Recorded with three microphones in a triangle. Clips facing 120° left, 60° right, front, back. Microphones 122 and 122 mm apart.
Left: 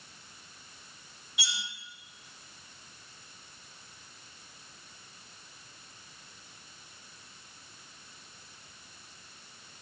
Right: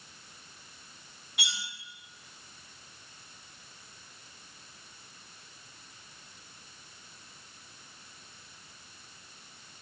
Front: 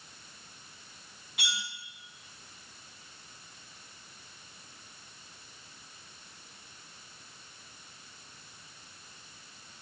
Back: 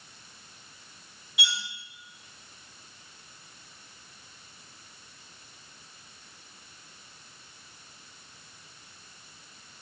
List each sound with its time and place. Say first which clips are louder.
1.4 s cutlery clinking: even, back 3 dB; 35° right, 1.7 m